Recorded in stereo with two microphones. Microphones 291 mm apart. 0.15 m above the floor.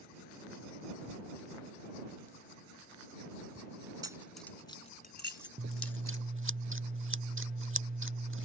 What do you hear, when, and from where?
4.0 s keys jangling: 15° right (ahead or behind); by 6.2 s 55° left (ahead or behind)
5.6 s scissors: 45° right (ahead or behind)